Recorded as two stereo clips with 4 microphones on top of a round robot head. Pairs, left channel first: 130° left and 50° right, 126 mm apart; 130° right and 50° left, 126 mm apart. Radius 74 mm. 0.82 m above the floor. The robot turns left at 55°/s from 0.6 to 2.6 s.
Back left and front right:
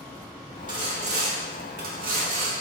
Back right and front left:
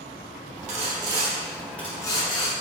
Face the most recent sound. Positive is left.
turn(degrees=-95)